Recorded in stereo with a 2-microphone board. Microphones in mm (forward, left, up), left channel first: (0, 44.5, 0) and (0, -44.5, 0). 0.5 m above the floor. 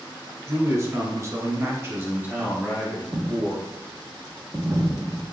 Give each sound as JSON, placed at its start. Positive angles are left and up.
{"t": 0.5, "sound": "a man speaking", "side_deg": -30, "distance_m": 1.2}
{"t": 3.1, "sound": "a dropped coin", "side_deg": -30, "distance_m": 1.5}